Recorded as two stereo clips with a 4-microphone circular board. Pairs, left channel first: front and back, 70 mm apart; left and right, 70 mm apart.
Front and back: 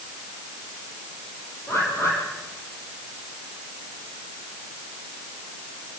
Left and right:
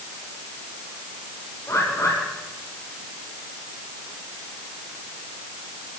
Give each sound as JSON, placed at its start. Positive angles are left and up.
{"t": 1.7, "sound": "a bird", "azimuth_deg": 50, "distance_m": 6.0}